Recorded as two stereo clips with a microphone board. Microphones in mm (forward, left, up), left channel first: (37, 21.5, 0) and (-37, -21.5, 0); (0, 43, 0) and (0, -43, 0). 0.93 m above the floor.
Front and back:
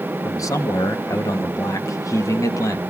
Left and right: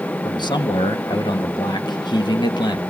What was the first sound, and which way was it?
A man speaking, 75° left.